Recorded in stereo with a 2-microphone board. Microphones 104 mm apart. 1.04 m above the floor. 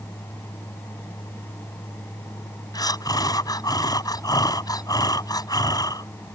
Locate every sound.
2.7 s breathing: 40° left (ahead or behind)